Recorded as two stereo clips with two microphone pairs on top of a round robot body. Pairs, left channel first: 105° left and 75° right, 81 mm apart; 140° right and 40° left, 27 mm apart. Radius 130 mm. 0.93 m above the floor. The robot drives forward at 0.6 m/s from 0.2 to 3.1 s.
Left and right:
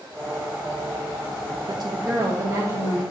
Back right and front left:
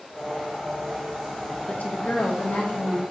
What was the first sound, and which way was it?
A woman speaking, 110° right.